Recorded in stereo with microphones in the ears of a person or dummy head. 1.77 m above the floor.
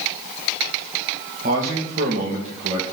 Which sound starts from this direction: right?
A man speaking, at 1.4 s.